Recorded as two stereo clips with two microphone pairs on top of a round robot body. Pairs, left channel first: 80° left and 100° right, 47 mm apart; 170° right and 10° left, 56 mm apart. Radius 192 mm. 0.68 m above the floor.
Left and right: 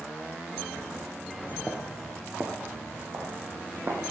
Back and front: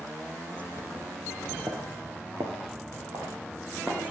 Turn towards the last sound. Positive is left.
turn(degrees=-55)